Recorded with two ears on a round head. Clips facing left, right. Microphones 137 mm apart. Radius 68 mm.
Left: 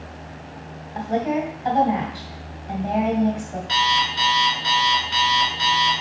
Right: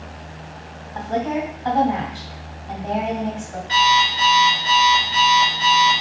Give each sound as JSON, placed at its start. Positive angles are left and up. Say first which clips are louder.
{"t": 0.9, "sound": "a woman speaking", "louder": "even", "side_deg": 15, "distance_m": 2.0}
{"t": 3.7, "sound": "an alarm clock", "louder": "right 5 dB", "side_deg": 70, "distance_m": 2.0}